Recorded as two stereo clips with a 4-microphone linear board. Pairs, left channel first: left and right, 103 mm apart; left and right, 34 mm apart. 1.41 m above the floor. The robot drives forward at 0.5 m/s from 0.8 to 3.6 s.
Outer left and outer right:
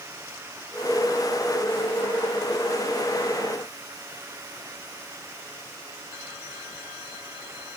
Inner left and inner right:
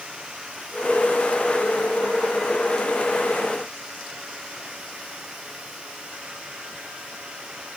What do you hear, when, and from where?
Only background noise.